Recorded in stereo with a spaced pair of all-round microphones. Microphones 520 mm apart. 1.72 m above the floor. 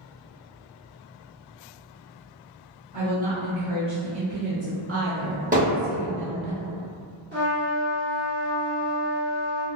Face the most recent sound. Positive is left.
turn(degrees=-20)  # may be behind; listen again after turning